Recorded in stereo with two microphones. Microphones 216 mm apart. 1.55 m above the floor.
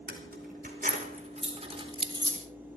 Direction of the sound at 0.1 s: 50° right (ahead or behind).